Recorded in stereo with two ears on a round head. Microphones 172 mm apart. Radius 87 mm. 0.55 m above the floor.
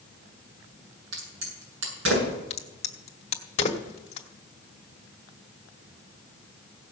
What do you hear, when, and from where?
1.1 s a crack: 75° right (ahead or behind), 8 m
2.5 s a crack: 35° left (ahead or behind), 1.4 m